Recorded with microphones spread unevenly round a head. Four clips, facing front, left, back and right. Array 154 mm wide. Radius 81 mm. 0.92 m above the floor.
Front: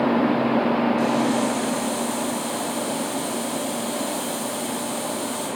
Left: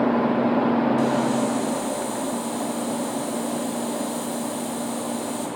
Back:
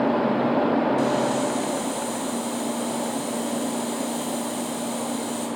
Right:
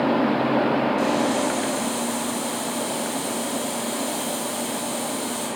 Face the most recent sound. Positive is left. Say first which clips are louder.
# even, front 1 dB
turn(degrees=-175)